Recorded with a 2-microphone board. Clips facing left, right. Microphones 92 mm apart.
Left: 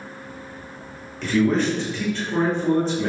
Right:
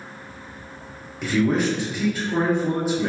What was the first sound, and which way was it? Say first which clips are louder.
A man speaking: left 1 dB; 10° right (ahead or behind).